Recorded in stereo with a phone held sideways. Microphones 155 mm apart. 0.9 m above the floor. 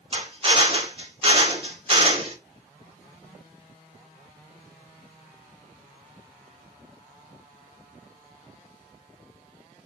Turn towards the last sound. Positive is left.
turn(degrees=-35)  # may be behind; listen again after turning